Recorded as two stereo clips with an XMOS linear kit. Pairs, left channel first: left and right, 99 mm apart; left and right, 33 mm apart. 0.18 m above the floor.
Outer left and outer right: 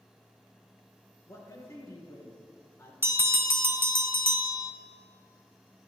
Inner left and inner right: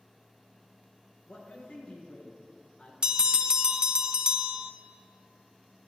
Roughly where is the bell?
Right.